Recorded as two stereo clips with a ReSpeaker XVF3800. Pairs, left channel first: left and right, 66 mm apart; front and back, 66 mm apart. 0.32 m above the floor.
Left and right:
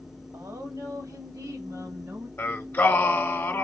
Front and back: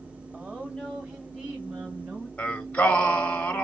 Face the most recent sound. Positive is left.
turn(degrees=55)